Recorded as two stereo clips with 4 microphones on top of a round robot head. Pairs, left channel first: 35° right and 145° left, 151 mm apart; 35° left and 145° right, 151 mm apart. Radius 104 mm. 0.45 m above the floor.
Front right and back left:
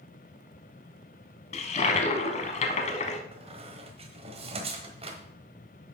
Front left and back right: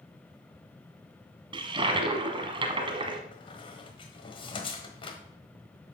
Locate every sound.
1.5 s a toilet flushing: 85° right, 1.0 m
3.3 s a squeak: 95° left, 1.3 m